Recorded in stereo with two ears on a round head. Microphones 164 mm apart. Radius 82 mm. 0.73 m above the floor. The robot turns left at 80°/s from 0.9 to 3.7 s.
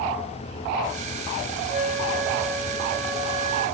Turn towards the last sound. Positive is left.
turn(degrees=165)